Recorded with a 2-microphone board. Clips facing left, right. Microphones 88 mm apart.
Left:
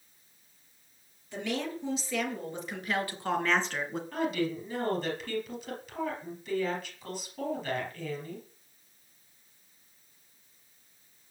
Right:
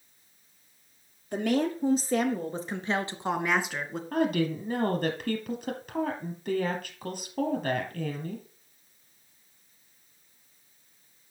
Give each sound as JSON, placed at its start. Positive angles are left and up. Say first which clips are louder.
{"t": 1.3, "sound": "a woman speaking", "louder": "right 7 dB", "side_deg": -55, "distance_m": 3.5}
{"t": 4.1, "sound": "a woman speaking", "louder": "right 5 dB", "side_deg": -55, "distance_m": 4.0}